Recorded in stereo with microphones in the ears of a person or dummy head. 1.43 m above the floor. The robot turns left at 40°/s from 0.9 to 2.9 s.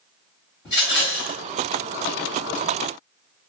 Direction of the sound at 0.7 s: Centre (ahead or behind).